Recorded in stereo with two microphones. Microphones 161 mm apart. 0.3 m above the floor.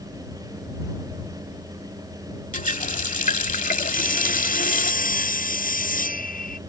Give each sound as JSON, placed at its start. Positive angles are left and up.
{"t": 2.5, "sound": "a running tap", "side_deg": 55}
{"t": 3.9, "sound": "sawing", "side_deg": 60}